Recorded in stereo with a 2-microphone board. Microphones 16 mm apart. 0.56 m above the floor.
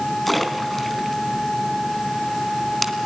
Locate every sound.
0.3 s a splash: 5° left (ahead or behind), 3 m